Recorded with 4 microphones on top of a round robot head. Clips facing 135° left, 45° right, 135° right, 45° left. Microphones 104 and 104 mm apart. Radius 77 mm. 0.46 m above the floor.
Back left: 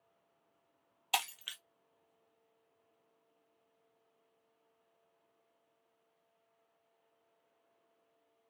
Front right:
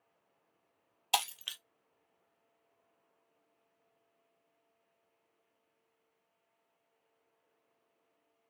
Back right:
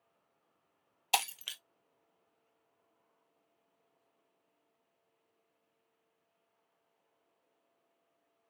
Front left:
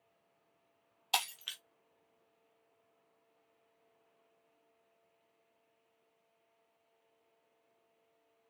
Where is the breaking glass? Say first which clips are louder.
Front right 3 dB, back right 4 dB; 100° right, 0.5 m.